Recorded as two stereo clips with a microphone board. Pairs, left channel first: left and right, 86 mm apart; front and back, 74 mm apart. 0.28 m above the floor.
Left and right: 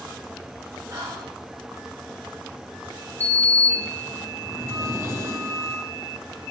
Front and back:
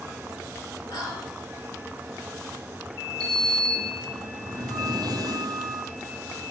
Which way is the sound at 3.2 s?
150° right.